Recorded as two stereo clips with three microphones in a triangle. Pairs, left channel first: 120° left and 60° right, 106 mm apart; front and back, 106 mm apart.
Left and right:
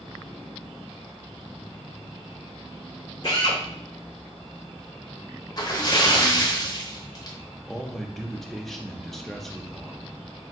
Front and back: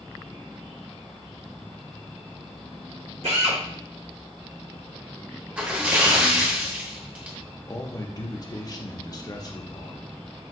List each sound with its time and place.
3.2 s a drill: 165° left, 1.4 m
5.6 s a splash: 110° left, 0.9 m
7.7 s a man speaking: 35° left, 0.7 m